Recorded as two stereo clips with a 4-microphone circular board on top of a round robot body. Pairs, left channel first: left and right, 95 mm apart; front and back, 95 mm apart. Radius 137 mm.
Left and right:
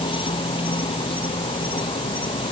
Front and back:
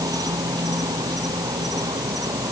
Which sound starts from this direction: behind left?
An insect, at 0.0 s.